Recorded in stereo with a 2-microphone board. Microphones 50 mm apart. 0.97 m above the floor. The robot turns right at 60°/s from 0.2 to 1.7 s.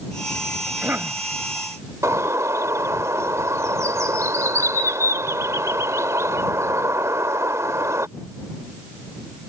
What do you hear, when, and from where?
0.7 s a cough: 150° right; by 1.2 s 115° right
2.0 s a bird: 80° right